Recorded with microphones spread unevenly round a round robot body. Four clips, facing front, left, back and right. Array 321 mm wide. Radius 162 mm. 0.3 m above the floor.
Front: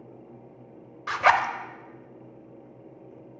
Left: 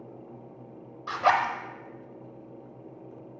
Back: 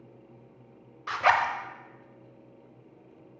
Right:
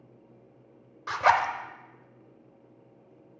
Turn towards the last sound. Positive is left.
turn(degrees=-5)